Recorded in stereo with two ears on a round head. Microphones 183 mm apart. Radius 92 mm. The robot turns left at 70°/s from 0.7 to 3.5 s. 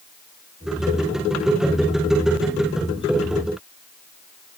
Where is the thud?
No thud in this recording.